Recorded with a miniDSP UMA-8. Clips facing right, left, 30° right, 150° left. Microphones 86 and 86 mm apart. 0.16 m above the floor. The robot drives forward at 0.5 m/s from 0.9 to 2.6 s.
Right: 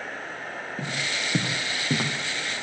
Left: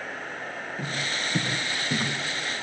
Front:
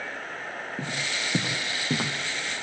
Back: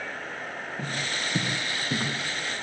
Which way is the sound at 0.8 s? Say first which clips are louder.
Even, back 1 dB; 35° right.